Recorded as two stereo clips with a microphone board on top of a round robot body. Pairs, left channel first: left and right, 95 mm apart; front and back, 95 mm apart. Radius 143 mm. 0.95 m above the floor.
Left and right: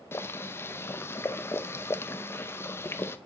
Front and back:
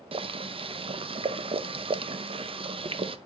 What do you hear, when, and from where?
0.1 s boiling: 155° left, 0.6 m